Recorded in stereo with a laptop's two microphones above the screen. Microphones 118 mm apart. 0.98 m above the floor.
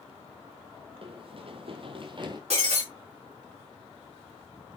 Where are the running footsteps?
50° right (ahead or behind), 1.6 m; by 2.4 s 40° right (ahead or behind), 1.5 m.